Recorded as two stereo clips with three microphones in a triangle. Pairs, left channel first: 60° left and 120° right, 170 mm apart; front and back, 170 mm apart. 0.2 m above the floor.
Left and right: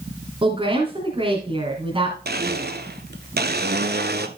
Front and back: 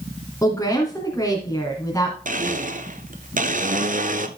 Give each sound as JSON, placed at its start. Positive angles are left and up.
{"t": 0.4, "sound": "a woman speaking", "azimuth_deg": -70, "distance_m": 2.5}
{"t": 2.2, "sound": "a blender", "azimuth_deg": -140, "distance_m": 0.9}